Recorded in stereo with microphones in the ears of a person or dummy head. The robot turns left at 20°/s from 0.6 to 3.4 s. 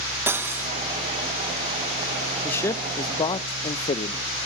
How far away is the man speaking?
About 0.6 m.